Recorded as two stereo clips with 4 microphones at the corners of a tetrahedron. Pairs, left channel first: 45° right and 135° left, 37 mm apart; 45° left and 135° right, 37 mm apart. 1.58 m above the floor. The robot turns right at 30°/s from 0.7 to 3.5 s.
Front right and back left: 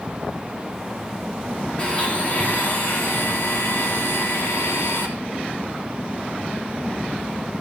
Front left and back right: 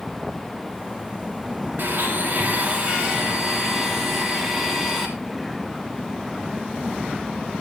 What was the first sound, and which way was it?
A blender, 110° right.